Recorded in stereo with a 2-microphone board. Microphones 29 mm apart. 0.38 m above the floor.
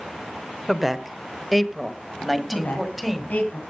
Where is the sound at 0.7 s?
5° right (ahead or behind), 1.0 m.